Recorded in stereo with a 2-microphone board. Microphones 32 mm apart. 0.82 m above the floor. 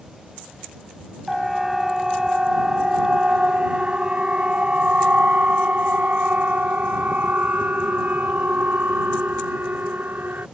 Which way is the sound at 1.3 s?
5° right (ahead or behind).